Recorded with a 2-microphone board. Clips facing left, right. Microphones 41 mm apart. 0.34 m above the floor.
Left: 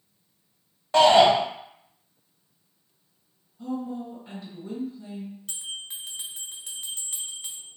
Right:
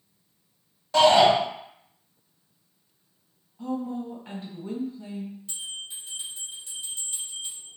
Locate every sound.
0.9 s a shout: 30° left (ahead or behind), 1.1 m
3.6 s a woman speaking: 45° right (ahead or behind), 1.6 m
5.5 s a bell: 80° left, 0.7 m